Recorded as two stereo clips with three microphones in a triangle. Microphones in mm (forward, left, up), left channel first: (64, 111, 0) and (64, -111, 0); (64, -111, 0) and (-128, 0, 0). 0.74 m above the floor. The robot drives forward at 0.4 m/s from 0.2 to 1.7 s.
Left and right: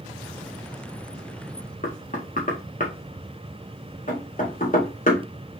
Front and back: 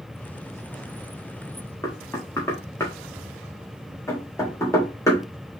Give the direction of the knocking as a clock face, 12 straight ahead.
11 o'clock.